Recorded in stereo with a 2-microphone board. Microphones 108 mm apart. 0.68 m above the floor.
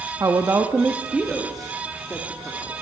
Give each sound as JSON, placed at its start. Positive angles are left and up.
{"t": 0.2, "sound": "a woman speaking", "side_deg": -30, "distance_m": 0.7}